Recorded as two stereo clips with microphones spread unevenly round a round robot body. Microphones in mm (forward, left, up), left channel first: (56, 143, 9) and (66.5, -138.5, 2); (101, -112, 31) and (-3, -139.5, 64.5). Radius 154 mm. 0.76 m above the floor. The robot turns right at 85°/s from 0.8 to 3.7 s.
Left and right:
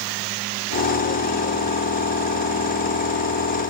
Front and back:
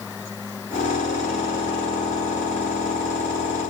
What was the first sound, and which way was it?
Only background noise.